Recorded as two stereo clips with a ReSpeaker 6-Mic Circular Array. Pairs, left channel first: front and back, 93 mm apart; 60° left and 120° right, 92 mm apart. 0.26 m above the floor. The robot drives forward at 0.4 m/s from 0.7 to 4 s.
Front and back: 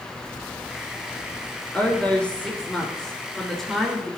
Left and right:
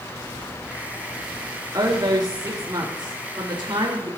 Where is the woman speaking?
75° right, 3.5 m; by 4.2 s 90° right, 3.5 m.